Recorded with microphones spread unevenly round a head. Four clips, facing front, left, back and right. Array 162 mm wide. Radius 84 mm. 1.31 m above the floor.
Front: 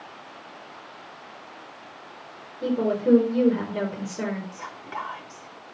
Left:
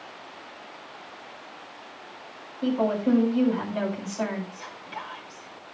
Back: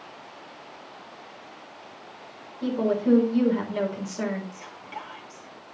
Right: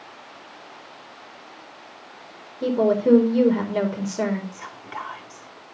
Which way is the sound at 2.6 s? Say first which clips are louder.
Right 5 dB, front 1 dB; 90° right.